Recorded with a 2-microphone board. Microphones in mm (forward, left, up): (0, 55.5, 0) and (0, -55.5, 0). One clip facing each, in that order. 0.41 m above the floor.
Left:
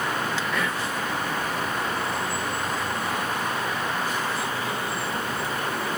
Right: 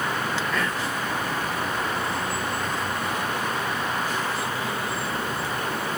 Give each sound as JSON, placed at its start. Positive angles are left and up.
{"t": 0.5, "sound": "whispering", "side_deg": 5, "distance_m": 1.0}